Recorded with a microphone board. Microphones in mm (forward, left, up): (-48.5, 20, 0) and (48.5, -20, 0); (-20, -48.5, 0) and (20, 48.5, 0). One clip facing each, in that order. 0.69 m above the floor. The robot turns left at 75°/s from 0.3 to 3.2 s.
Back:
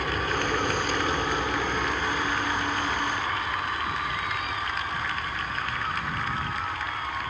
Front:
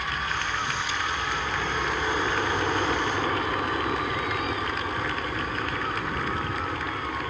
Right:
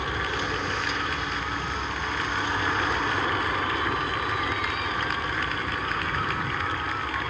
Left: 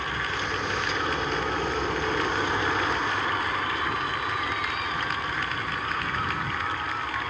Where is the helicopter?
Straight behind; by 7.3 s 40° right.